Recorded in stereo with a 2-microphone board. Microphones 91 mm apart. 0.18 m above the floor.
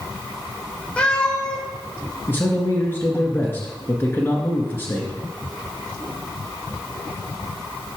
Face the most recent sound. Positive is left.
turn(degrees=25)  # may be behind; listen again after turning